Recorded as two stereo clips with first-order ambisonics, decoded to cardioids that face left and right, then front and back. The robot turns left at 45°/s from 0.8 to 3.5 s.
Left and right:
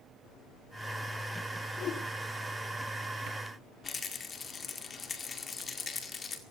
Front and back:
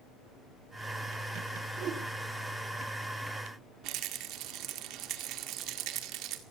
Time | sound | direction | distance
1.8 | a whoosh | 140° left | 3.5 m
3.8 | a rattle | 160° left | 2.0 m